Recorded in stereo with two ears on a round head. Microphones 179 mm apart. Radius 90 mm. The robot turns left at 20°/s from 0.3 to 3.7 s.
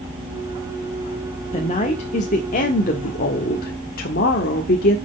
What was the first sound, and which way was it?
A woman speaking, 135° left.